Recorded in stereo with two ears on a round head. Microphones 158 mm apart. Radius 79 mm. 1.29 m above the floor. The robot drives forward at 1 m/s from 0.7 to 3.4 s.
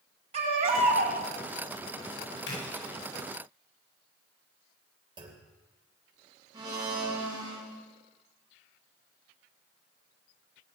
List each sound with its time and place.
0.3 s a baby crying: 40° right (ahead or behind), 4.5 m
2.5 s a splash: 80° left, 8 m; by 3.0 s 75° left (ahead or behind), 8 m
5.2 s a clunk: 30° right (ahead or behind), 3 m
6.5 s a blender: 25° right (ahead or behind), 5.5 m